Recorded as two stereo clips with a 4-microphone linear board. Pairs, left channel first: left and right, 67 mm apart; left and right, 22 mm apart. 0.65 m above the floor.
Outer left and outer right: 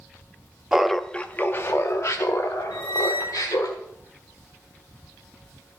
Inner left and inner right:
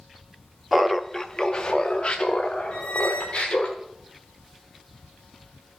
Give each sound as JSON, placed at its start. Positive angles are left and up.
{"t": 0.7, "sound": "laughter", "side_deg": -10, "distance_m": 0.5}
{"t": 2.7, "sound": "a squeak", "side_deg": 80, "distance_m": 2.5}